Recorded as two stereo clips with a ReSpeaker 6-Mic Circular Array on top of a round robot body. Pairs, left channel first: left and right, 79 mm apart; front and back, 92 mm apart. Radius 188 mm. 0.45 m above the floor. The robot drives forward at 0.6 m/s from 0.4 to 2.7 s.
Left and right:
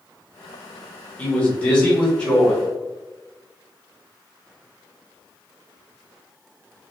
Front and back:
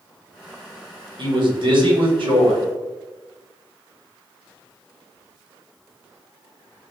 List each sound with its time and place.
1.2 s a man speaking: 165° left, 2 m; by 2.6 s 170° left, 3 m